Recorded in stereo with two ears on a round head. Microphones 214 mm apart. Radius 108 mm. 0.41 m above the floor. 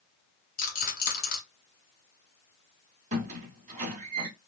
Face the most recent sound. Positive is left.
turn(degrees=-30)  # may be behind; listen again after turning